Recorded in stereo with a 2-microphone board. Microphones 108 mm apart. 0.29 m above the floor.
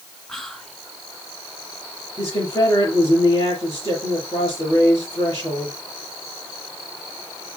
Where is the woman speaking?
40° left (ahead or behind), 4 m.